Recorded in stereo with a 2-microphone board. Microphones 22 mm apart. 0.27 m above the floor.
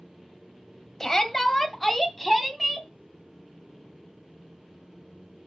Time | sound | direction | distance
1.0 | a shout | 15° left (ahead or behind) | 1.6 m